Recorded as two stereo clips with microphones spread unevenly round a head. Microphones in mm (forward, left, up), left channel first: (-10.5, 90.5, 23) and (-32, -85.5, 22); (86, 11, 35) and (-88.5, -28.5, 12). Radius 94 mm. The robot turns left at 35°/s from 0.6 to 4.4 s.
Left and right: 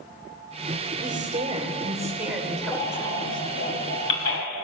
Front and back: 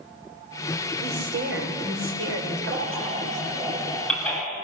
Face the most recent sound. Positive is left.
turn(degrees=90)